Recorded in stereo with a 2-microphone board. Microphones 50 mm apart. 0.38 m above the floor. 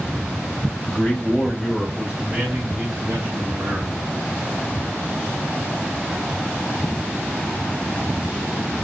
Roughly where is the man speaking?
Centre.